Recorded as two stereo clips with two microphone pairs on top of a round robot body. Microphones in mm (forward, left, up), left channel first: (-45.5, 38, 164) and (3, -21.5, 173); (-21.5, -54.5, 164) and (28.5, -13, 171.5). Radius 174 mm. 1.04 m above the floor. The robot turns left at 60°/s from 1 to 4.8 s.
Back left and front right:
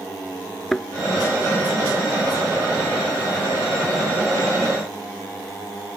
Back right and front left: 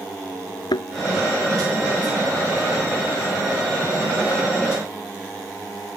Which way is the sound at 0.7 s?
145° right.